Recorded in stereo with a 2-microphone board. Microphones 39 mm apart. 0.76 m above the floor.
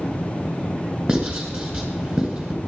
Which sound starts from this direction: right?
Writing, at 1.1 s.